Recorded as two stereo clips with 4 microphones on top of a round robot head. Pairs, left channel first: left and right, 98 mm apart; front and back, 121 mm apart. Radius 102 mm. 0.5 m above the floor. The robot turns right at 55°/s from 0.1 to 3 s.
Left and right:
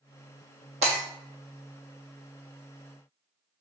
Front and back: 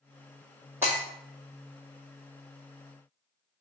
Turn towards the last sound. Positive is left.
turn(degrees=20)